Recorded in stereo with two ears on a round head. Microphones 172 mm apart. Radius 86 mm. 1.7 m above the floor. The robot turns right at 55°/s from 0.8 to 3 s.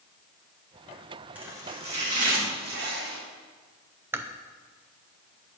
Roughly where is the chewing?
Centre.